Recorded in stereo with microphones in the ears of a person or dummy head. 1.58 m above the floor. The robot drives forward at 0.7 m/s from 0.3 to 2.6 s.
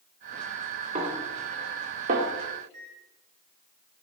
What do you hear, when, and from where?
0.9 s a snare drum: 40° right (ahead or behind), 2.5 m; by 2.3 s 55° right (ahead or behind), 2.0 m
2.6 s a microwave: 55° right (ahead or behind), 5 m